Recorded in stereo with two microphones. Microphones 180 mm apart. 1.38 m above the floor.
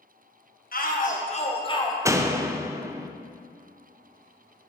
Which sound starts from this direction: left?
A shout, at 0.7 s.